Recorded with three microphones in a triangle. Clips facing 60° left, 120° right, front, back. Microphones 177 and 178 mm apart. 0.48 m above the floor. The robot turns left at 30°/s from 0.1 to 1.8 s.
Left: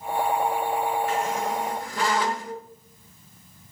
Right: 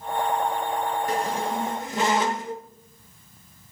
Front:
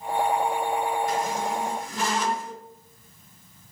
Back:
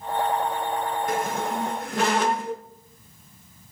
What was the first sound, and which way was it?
A squeak, 160° right.